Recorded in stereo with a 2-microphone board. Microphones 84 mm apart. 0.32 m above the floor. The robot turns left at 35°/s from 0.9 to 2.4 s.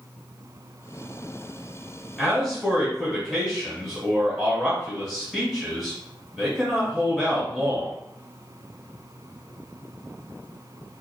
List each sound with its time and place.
2.2 s a man speaking: 5° right (ahead or behind), 1.4 m